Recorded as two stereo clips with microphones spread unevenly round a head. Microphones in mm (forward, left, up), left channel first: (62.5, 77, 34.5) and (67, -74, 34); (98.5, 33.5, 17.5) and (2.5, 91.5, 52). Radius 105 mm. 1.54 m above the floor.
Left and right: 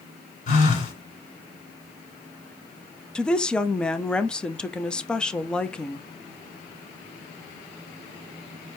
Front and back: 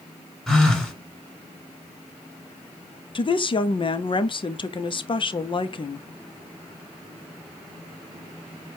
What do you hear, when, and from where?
0.5 s a phone buzzing: 60° left, 2 m
3.1 s a woman speaking: 5° left, 0.6 m